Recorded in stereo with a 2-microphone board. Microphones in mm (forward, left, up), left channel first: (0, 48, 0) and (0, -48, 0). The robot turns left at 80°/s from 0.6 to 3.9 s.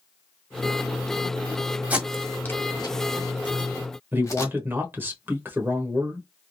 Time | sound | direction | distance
1.9 | tape being pulled | 15° right (ahead or behind) | 1.4 m
4.1 | a man speaking | 20° right (ahead or behind) | 1.0 m